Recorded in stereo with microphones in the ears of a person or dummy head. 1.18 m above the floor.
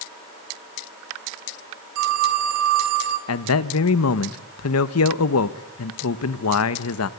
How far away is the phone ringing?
About 2.5 m.